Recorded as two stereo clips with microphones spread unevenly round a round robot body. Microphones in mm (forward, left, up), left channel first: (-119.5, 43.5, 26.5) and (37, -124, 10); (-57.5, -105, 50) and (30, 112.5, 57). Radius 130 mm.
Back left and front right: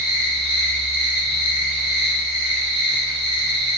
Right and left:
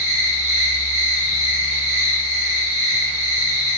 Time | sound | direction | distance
0.0 | an insect | 5° left | 1.2 m